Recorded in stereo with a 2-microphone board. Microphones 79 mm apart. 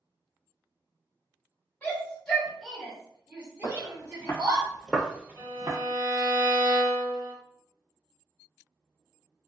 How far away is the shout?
About 1.5 m.